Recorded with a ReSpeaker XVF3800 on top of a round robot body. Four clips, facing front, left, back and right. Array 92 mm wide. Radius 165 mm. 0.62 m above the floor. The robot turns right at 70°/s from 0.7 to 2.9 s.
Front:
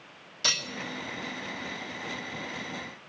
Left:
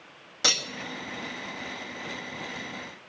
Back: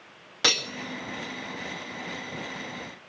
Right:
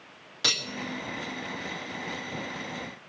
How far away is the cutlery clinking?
About 1.5 m.